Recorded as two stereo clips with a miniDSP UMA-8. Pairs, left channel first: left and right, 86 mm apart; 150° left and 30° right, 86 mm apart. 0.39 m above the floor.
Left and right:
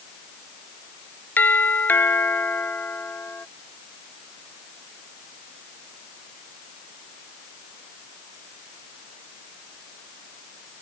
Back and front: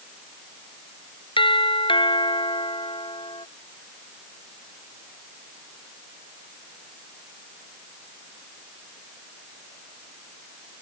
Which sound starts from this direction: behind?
A doorbell, at 1.4 s.